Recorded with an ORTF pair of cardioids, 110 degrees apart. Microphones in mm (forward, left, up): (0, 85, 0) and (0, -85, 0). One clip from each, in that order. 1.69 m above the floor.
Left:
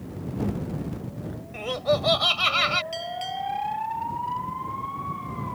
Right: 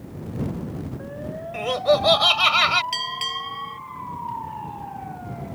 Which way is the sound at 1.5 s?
30° right.